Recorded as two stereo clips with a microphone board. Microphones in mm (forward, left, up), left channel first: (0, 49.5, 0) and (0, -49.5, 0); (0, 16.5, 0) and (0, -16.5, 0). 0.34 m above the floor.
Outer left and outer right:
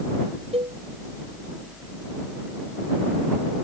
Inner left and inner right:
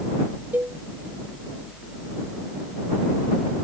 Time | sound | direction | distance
0.5 | a cowbell | 85° right | ?